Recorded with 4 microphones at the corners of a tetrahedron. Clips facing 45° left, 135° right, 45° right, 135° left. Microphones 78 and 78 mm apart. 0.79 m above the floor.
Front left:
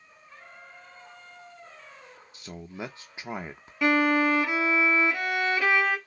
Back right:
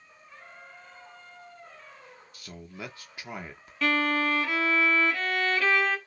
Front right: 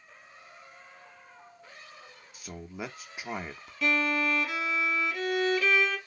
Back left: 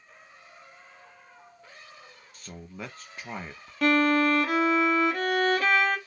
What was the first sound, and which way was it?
A man speaking, 25° left.